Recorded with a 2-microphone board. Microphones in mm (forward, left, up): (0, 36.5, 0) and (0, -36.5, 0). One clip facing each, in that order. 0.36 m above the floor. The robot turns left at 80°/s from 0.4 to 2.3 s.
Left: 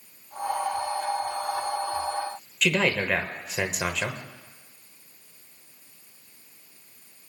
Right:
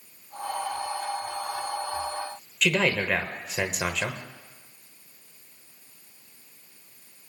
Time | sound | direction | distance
2.6 | a man speaking | 5° left (ahead or behind) | 1.1 m